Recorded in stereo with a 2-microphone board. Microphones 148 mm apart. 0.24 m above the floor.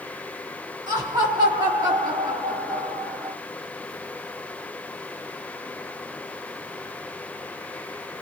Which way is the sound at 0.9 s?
25° right (ahead or behind).